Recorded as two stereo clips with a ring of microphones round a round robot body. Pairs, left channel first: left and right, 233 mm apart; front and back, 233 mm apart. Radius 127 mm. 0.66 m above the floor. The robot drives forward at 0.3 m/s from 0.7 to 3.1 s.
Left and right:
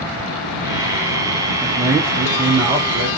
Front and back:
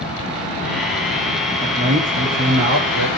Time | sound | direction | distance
1.6 | a man speaking | 155° right | 0.8 m